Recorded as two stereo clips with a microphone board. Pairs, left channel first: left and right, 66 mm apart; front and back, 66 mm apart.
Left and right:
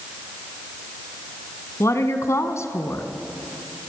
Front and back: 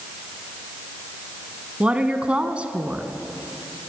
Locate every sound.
1.8 s a woman speaking: 110° left, 1.6 m